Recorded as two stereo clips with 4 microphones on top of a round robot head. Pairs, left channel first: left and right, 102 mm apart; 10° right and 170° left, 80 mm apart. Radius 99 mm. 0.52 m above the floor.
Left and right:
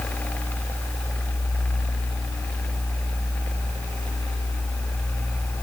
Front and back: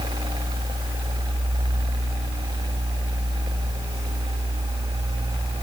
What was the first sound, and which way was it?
Only background noise.